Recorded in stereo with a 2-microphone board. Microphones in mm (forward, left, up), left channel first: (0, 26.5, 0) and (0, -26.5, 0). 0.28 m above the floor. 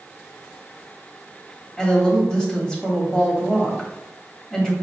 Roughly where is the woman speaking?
Centre.